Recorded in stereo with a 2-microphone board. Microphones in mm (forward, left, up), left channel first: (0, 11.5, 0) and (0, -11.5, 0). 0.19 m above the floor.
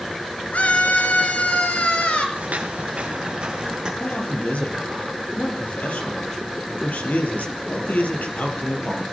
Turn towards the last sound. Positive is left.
turn(degrees=75)  # may be behind; listen again after turning